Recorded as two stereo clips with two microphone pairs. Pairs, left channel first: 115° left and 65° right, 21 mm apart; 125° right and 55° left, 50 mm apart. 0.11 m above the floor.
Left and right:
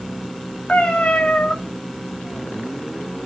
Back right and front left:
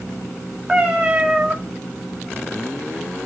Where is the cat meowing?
130° left, 1.6 m.